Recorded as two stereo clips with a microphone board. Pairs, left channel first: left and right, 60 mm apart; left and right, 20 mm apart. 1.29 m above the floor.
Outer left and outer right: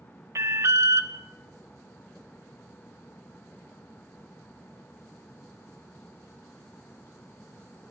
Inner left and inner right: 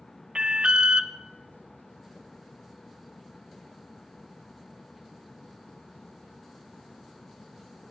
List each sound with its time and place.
0.3 s an alarm: 50° right (ahead or behind), 0.6 m